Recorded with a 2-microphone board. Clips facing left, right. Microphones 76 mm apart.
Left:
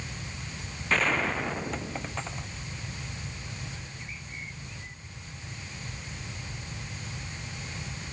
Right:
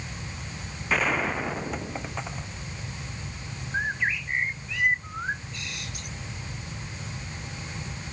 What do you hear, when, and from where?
0.9 s a gunshot: 10° right (ahead or behind)
3.7 s a bird: 75° right (ahead or behind)